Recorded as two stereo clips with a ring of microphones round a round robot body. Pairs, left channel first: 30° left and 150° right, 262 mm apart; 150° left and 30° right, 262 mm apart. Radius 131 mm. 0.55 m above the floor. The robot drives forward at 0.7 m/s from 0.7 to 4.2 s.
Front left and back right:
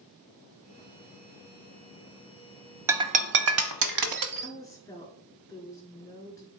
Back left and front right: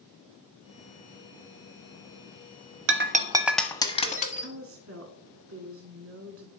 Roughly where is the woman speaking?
Ahead right.